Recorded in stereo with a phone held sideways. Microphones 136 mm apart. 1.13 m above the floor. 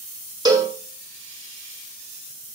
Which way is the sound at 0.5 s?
30° right (ahead or behind).